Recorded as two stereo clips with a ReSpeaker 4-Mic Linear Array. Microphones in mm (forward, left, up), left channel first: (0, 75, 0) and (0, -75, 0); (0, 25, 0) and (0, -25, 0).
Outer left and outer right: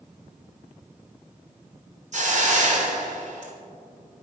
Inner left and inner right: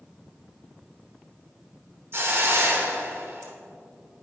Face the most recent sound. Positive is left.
turn(degrees=-50)  # may be behind; listen again after turning